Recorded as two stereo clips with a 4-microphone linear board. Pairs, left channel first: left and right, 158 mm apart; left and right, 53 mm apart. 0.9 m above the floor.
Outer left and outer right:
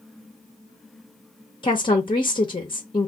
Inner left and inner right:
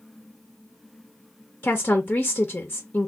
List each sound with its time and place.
1.6 s a woman speaking: 30° left (ahead or behind), 0.7 m